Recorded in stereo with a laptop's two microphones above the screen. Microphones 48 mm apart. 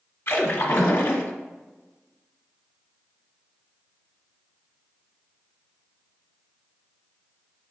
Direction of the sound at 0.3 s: 60° left (ahead or behind).